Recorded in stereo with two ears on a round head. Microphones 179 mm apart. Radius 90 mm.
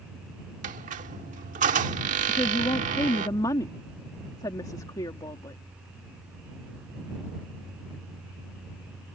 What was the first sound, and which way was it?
A squeak, 40° right (ahead or behind).